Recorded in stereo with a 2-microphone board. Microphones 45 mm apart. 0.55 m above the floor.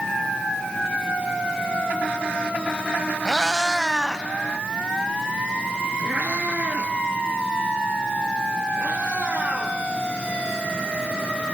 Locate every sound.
3.2 s a cat meowing: 15° left (ahead or behind), 1.0 m; by 9.8 s 50° right (ahead or behind), 6.5 m